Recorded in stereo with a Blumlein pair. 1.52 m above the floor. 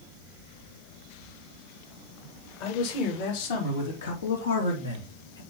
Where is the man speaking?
45° left, 3 m; by 5.4 s 75° left, 2.5 m.